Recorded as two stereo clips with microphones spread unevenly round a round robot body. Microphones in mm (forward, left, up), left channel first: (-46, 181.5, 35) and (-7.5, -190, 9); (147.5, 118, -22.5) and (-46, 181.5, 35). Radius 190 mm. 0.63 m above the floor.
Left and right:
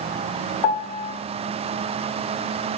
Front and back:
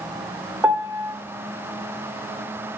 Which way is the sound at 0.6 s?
75° left.